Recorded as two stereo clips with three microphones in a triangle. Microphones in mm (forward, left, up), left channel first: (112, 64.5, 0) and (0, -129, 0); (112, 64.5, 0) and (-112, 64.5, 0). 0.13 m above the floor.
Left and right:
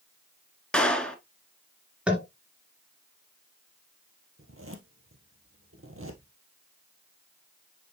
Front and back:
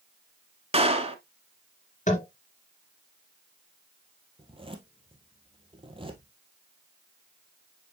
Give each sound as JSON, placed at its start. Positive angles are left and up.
{"t": 0.7, "sound": "a clap", "azimuth_deg": 140, "distance_m": 1.0}
{"t": 2.1, "sound": "tapping", "azimuth_deg": -35, "distance_m": 2.5}
{"t": 4.4, "sound": "a zipper", "azimuth_deg": -115, "distance_m": 1.5}